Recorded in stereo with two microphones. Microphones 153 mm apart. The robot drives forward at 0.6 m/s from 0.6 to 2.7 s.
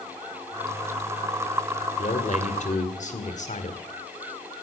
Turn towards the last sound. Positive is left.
turn(degrees=50)  # may be behind; listen again after turning